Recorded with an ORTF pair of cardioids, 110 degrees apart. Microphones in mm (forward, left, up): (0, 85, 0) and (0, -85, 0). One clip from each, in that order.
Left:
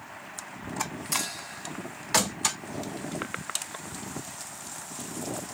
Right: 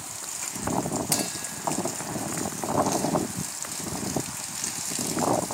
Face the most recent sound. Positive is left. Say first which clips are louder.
# even
turn(degrees=-50)